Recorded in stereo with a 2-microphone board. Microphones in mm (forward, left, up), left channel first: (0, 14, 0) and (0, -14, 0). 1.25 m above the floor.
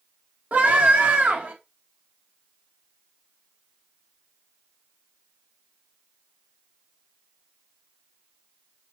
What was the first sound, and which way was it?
A scream, 80° right.